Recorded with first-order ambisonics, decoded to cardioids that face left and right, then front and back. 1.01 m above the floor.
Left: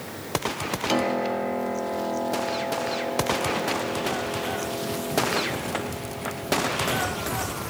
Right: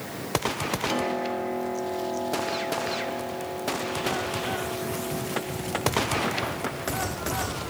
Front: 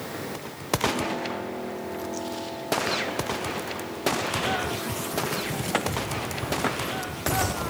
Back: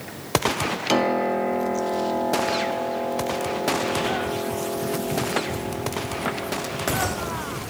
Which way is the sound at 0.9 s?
160° left.